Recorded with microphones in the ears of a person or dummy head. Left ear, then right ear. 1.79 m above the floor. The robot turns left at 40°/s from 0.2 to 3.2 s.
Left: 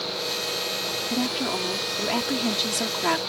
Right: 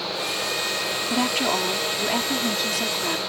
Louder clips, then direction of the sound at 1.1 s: Right 6 dB; 130° right.